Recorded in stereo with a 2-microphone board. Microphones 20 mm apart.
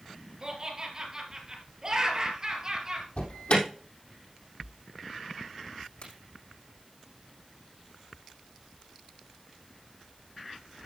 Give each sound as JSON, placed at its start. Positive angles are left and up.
{"t": 0.4, "sound": "laughter", "side_deg": -25, "distance_m": 3.0}
{"t": 3.2, "sound": "an alarm", "side_deg": 65, "distance_m": 3.0}
{"t": 6.0, "sound": "a crack", "side_deg": 75, "distance_m": 7.0}